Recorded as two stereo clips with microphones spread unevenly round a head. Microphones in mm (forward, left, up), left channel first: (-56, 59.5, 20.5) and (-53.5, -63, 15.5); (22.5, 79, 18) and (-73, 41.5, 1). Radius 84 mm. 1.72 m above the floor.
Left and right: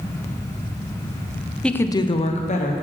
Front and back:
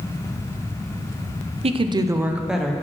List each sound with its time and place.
1.6 s a woman speaking: 175° left, 0.8 m; by 2.7 s 105° left, 1.2 m